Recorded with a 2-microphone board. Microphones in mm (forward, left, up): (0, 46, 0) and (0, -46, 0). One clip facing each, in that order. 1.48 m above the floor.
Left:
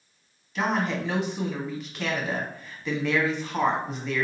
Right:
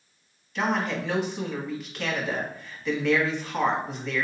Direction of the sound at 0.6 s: 10° left (ahead or behind).